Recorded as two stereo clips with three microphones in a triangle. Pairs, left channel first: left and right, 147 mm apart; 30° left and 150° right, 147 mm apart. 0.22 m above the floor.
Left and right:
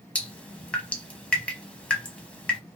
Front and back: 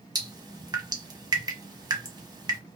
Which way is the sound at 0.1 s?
170° left.